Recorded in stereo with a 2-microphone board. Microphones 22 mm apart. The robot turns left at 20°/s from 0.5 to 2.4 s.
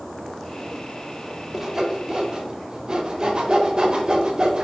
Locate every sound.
1.5 s sawing: 20° right (ahead or behind), 0.7 m; by 4.7 s 35° right (ahead or behind), 0.7 m